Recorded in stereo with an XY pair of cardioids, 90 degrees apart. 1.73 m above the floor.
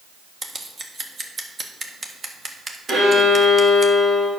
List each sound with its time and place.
0.4 s scissors: 35° right, 1.5 m
2.9 s a violin: 65° right, 4.5 m